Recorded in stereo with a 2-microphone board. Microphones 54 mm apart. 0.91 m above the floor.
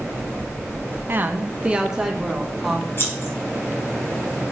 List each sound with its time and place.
1.1 s a woman speaking: 40° right (ahead or behind), 0.8 m; by 2.9 s centre (ahead or behind), 2.0 m
3.0 s scissors: 45° left (ahead or behind), 4.5 m